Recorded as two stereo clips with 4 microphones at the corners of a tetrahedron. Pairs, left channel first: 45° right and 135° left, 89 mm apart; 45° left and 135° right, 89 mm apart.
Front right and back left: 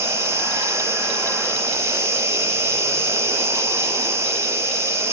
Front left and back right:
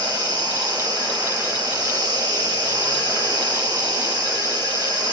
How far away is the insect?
About 7.5 m.